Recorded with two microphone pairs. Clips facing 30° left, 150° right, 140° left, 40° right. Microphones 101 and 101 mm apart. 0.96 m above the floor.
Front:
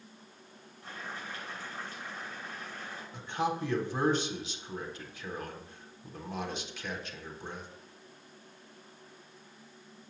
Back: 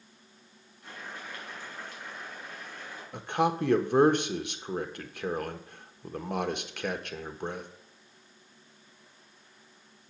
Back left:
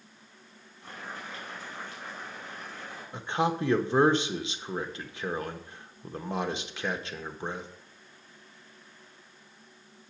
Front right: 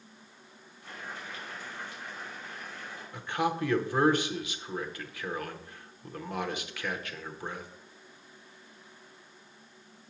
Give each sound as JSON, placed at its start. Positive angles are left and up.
{"t": 0.8, "sound": "boiling", "azimuth_deg": 95, "distance_m": 5.0}
{"t": 3.1, "sound": "a man speaking", "azimuth_deg": -155, "distance_m": 1.0}